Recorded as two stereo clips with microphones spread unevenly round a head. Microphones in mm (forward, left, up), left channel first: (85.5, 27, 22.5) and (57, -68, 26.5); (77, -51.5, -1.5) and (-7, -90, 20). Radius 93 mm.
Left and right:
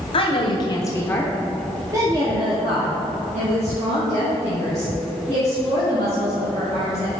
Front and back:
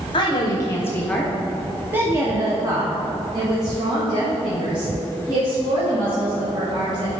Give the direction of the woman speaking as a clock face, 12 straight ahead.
9 o'clock.